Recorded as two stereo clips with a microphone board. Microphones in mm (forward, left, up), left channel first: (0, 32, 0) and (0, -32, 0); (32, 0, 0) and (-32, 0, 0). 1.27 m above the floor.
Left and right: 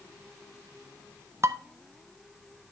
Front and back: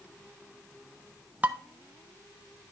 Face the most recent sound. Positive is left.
turn(degrees=-115)